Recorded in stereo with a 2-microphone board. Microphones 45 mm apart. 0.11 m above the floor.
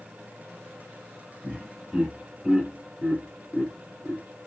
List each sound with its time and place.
1.4 s laughter: 5° right (ahead or behind), 1.5 m; by 4.2 s centre (ahead or behind), 1.8 m